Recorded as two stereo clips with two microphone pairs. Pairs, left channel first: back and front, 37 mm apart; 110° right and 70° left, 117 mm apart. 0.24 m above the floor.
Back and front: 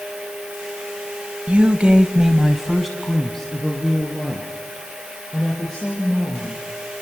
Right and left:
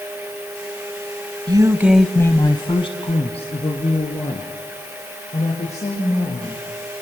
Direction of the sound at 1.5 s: 40° left.